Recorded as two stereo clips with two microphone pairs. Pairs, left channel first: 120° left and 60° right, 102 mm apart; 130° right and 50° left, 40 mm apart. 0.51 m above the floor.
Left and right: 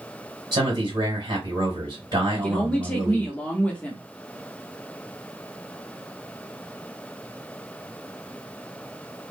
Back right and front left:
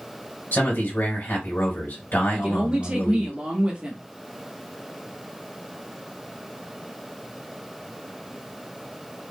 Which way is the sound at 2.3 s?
65° left.